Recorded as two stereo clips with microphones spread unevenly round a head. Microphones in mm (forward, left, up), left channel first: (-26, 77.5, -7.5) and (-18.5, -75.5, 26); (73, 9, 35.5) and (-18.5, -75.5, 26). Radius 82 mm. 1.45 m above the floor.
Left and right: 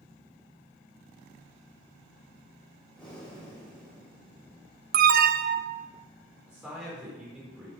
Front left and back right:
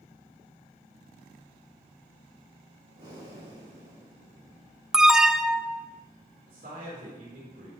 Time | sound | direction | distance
2.9 | breathing | straight behind | 5.5 m
4.9 | an alarm | 55° right | 0.5 m
6.5 | a man speaking | 170° right | 5 m